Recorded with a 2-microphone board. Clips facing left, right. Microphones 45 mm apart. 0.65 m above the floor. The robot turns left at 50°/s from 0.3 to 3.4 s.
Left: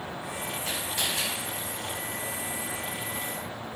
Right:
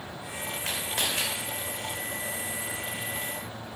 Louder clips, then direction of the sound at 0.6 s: Right 2 dB; 65° right (ahead or behind).